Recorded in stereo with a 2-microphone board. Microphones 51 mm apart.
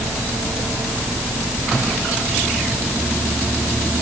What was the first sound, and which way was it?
Only background noise.